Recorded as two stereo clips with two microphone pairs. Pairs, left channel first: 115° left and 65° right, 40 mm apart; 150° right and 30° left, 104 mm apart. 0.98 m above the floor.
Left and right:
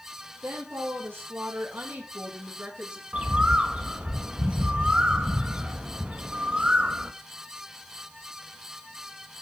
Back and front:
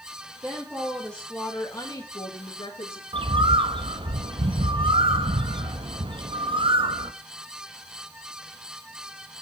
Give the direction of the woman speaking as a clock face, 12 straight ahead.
1 o'clock.